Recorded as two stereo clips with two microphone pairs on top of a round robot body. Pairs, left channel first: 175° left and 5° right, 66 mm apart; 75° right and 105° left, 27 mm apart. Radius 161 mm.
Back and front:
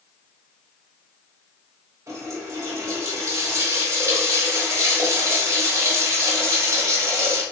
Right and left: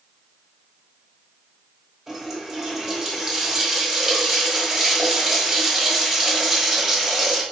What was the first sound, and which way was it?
A running tap, 40° left.